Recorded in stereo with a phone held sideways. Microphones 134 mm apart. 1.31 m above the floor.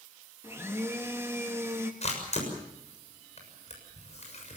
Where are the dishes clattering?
No dishes clattering in this recording.